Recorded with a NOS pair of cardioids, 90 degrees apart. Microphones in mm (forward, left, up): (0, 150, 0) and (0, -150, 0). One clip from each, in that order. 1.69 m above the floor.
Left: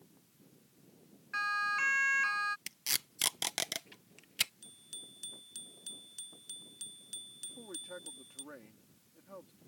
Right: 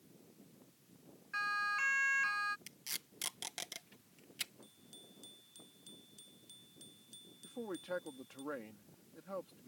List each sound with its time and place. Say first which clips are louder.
1.3 s a siren: left 3 dB; 25° left
2.7 s tape being pulled: left 9 dB; 60° left
4.6 s a bicycle bell: left 8 dB; 65° left
7.4 s a man speaking: right 7 dB; 50° right